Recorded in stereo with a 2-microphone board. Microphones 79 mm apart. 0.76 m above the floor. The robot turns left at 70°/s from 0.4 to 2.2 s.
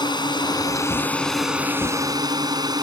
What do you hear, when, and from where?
0.0 s a drone: 70° left; by 2.8 s 55° right